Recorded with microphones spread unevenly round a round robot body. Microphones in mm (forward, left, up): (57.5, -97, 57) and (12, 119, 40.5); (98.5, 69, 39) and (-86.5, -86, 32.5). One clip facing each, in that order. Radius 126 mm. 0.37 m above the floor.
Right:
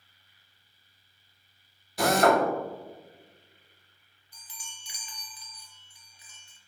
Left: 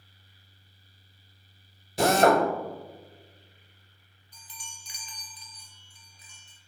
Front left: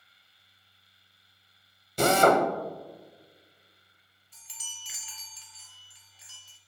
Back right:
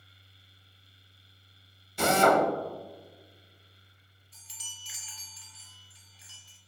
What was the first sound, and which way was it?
A drill, 60° left.